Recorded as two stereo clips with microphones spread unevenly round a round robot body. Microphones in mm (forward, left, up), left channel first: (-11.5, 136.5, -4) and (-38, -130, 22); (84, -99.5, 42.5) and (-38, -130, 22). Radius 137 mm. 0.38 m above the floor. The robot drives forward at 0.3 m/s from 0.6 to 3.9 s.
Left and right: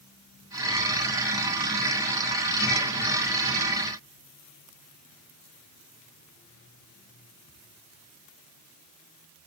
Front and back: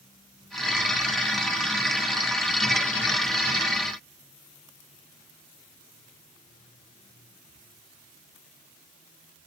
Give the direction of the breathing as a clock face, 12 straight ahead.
No breathing in this recording.